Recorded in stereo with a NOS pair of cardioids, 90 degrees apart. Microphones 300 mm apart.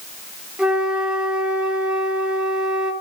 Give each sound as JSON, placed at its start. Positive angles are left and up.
{"t": 0.6, "sound": "a flute", "azimuth_deg": -5, "distance_m": 2.5}